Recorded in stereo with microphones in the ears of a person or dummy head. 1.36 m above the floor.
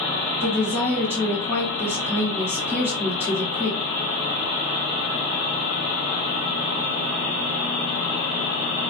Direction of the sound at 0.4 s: 10° right (ahead or behind).